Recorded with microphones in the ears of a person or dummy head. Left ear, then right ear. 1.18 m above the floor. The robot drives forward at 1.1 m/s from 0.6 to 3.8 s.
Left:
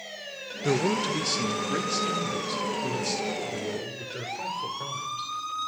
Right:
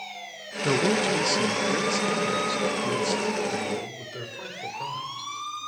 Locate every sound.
0.6 s a man speaking: 20° right (ahead or behind), 0.9 m; by 5.3 s 5° right (ahead or behind), 4.5 m